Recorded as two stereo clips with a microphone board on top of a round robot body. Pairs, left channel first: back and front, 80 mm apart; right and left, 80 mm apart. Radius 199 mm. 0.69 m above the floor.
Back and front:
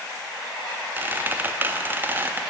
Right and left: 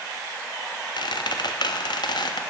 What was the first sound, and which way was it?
A squeak, 65° right.